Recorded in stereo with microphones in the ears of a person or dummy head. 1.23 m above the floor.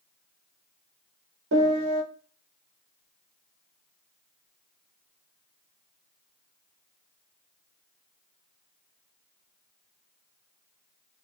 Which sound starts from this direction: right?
A piano, at 1.5 s.